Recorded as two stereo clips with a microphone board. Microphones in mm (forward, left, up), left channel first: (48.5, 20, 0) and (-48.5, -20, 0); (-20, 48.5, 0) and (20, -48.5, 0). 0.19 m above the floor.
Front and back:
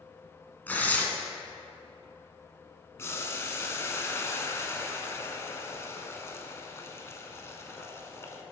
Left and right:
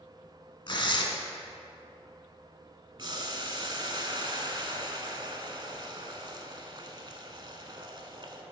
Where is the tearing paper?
90° left, 0.8 m.